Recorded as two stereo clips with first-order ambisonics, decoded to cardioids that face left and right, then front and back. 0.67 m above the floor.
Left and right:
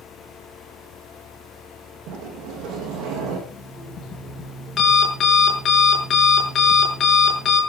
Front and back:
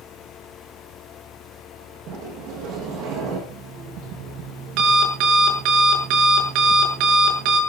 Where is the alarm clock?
155° left, 7 m.